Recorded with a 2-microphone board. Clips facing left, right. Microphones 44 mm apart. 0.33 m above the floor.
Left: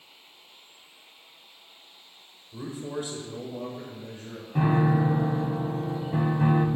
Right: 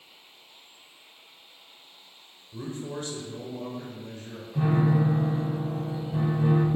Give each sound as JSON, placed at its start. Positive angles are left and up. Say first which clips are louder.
{"t": 2.5, "sound": "a man speaking", "louder": "left 1 dB", "side_deg": 5, "distance_m": 1.2}
{"t": 4.5, "sound": "a piano", "louder": "left 1 dB", "side_deg": 55, "distance_m": 0.9}